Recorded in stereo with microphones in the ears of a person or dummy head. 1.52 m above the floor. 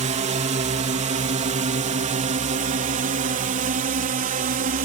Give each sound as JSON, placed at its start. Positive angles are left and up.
{"t": 0.0, "sound": "a drone", "side_deg": -35}